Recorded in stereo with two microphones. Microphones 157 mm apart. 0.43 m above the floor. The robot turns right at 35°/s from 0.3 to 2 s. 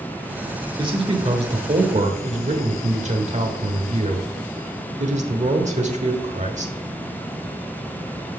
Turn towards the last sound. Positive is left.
turn(degrees=-95)